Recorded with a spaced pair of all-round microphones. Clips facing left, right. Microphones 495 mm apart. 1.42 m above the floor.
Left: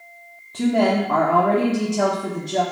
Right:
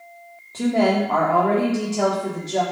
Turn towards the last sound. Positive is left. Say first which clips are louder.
# even
turn(degrees=30)  # may be behind; listen again after turning